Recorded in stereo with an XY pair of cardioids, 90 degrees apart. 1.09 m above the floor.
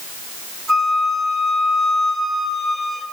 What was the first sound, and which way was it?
A flute, 65° right.